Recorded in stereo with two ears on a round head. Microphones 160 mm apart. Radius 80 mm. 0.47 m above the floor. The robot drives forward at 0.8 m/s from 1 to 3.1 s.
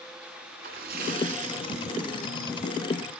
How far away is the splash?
About 1.3 m.